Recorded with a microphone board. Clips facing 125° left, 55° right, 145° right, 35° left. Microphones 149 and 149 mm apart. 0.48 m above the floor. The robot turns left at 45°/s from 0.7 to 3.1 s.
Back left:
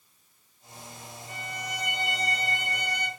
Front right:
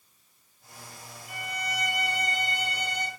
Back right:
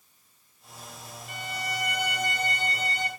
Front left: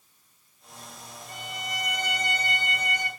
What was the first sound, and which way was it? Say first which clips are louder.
A violin: front right 3 dB, back right 3 dB; 135° right.